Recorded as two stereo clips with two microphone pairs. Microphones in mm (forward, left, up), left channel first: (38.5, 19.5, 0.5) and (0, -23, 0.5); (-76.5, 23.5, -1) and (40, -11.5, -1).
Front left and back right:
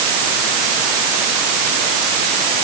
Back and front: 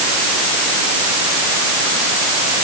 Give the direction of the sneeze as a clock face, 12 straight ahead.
No sneeze in this recording.